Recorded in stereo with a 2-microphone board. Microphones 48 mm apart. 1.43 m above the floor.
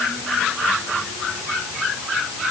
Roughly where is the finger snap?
I don't hear a finger snap.